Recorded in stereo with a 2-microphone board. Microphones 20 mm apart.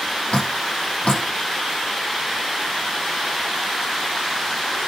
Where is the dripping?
75° left (ahead or behind), 6.5 m.